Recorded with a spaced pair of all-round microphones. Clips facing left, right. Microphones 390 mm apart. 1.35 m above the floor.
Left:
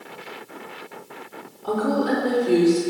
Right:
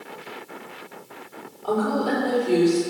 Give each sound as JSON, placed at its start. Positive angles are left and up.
{"t": 1.6, "sound": "a woman speaking", "side_deg": 30, "distance_m": 3.5}